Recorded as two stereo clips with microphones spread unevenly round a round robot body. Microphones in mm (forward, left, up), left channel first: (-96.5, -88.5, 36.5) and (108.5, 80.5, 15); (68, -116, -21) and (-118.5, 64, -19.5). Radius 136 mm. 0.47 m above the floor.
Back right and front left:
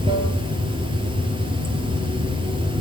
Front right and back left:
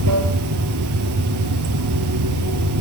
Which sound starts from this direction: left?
Running water, at 0.0 s.